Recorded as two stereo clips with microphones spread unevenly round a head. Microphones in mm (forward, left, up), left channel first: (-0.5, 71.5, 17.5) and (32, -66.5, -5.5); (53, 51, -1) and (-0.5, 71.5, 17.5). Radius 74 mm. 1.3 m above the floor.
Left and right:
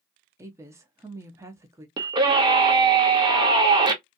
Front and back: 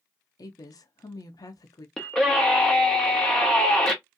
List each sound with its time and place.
0.4 s a woman speaking: 5° right, 0.5 m
2.0 s a scream: 65° right, 0.6 m